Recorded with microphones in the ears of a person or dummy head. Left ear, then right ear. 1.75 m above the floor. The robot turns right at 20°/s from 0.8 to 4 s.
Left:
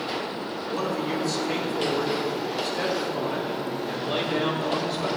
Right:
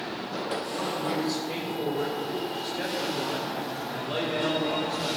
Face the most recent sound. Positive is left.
turn(degrees=175)